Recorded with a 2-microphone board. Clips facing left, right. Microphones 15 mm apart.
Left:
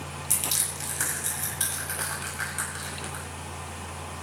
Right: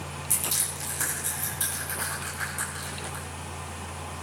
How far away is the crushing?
About 9 m.